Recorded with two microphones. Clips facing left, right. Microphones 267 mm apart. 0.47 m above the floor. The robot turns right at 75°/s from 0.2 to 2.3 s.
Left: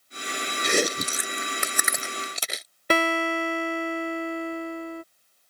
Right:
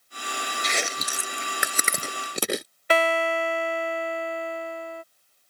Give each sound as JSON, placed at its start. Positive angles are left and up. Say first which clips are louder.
{"t": 0.6, "sound": "chewing", "louder": "left 11 dB", "side_deg": 60}
{"t": 2.9, "sound": "a guitar", "louder": "even", "side_deg": 50}